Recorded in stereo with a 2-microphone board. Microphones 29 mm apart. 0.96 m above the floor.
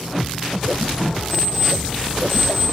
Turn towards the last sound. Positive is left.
turn(degrees=0)  # may be behind; listen again after turning